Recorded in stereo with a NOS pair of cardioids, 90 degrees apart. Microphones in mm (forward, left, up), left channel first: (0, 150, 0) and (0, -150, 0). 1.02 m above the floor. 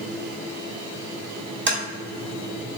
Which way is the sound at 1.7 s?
40° right.